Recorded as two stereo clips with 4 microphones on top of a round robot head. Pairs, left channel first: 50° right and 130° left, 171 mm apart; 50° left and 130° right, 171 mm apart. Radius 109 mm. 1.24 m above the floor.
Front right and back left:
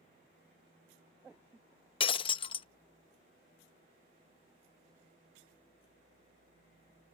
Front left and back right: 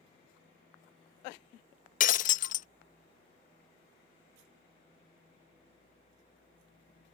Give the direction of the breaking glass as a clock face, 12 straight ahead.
12 o'clock.